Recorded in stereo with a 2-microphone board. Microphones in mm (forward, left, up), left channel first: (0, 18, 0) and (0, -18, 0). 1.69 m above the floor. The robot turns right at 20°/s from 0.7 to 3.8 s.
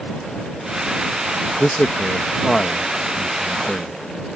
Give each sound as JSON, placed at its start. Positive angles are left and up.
{"t": 1.6, "sound": "a man speaking", "side_deg": 45}